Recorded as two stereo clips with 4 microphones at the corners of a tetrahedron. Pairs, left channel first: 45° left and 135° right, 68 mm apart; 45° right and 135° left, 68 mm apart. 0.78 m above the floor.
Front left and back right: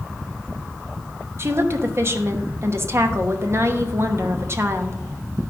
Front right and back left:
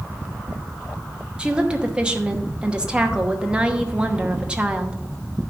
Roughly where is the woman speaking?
Behind right.